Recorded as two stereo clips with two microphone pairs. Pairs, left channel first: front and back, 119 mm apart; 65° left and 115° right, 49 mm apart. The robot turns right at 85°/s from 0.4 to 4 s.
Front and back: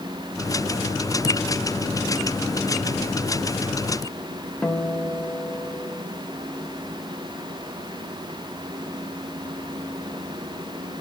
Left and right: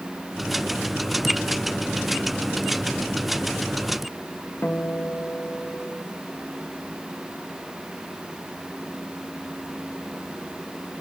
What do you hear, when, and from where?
4.6 s a guitar: 70° left, 1.1 m